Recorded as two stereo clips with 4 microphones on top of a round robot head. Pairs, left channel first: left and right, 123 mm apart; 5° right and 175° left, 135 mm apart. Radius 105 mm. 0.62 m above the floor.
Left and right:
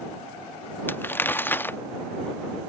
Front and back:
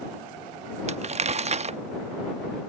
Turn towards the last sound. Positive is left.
turn(degrees=160)